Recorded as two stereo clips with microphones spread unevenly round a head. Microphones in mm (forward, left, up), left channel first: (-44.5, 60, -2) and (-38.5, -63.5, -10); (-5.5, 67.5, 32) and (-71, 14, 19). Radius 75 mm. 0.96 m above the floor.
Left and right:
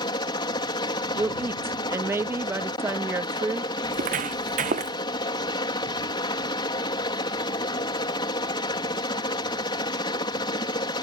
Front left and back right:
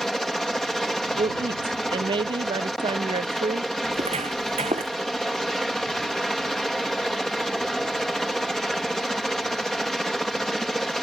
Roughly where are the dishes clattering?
No dishes clattering in this recording.